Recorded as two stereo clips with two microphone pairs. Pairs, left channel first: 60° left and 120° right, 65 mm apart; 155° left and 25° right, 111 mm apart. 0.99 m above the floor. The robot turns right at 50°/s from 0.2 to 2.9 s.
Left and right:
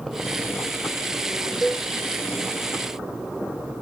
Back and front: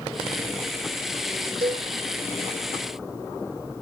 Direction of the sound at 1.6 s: 30° right.